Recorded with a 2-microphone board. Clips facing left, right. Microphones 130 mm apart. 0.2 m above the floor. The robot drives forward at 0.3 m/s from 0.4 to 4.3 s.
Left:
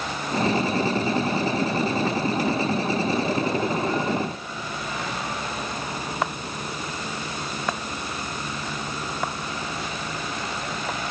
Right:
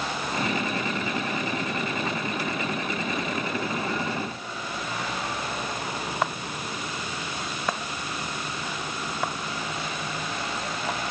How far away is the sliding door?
No sliding door in this recording.